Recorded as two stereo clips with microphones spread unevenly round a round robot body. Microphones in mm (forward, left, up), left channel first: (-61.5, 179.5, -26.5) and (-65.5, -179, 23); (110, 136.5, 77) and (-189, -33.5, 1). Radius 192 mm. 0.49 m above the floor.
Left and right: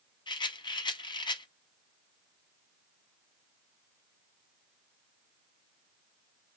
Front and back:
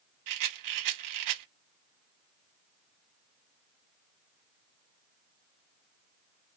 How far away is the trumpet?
I don't hear a trumpet.